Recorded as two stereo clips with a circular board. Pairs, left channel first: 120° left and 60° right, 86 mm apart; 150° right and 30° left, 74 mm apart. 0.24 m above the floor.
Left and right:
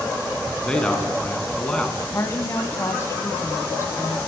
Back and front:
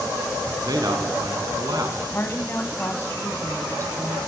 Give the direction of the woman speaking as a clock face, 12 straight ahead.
7 o'clock.